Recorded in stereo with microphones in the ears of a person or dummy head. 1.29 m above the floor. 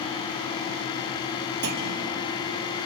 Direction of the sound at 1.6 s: 55° right (ahead or behind).